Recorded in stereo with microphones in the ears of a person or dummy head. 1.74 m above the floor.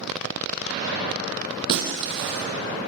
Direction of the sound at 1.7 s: 55° right (ahead or behind).